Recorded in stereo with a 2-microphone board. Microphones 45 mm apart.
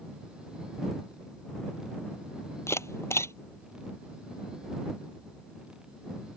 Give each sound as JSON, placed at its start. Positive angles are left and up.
{"t": 2.7, "sound": "a camera shutter", "side_deg": 80}